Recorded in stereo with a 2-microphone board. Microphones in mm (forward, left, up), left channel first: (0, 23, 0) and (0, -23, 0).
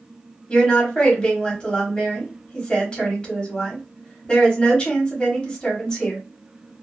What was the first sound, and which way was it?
A woman speaking, 20° left (ahead or behind).